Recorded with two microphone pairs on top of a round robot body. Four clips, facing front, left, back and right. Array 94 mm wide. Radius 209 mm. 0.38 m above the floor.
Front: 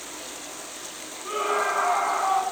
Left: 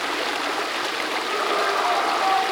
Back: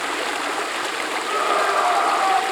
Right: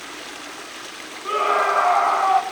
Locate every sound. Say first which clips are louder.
0.0 s running water: left 11 dB, back 16 dB; 150° left, 0.9 m
1.2 s a scream: right 6 dB, back 4 dB; 115° right, 3.5 m